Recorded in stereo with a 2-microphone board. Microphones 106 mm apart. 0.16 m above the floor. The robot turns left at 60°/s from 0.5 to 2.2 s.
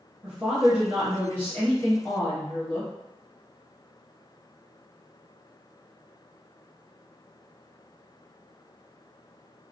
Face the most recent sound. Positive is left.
turn(degrees=105)